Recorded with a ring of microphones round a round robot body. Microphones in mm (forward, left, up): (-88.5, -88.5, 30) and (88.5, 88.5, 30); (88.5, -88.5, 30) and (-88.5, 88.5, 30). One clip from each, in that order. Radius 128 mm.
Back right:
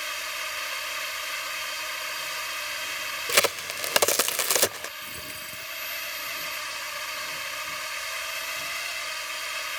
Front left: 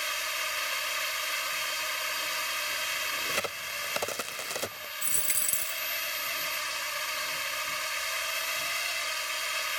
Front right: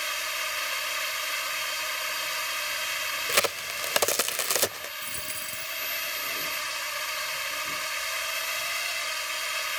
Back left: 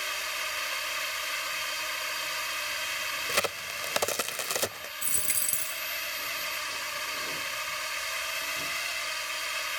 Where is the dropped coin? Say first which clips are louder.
Front left 3 dB, back left 1 dB; 70° left.